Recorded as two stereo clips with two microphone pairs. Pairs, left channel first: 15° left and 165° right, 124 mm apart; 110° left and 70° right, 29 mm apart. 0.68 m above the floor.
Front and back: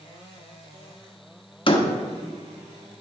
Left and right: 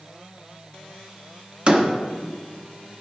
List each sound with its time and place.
1.7 s a door slam: 20° right, 1.0 m